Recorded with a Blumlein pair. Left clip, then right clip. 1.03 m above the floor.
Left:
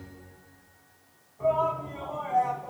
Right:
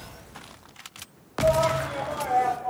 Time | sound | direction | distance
1.4 | a shout | 55° right | 6 m